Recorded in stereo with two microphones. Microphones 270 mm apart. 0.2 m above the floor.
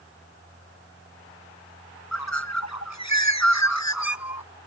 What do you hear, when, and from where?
2.1 s a bird: 85° left